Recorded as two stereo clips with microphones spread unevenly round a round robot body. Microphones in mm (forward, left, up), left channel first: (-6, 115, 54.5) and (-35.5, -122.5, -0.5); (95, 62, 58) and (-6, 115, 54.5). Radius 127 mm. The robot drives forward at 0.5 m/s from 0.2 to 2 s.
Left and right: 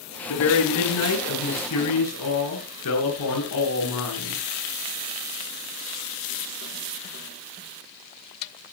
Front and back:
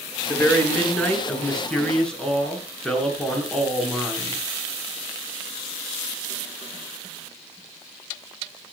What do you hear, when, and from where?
0.3 s a man speaking: 50° left, 7.5 m; by 4.4 s 55° left, 7 m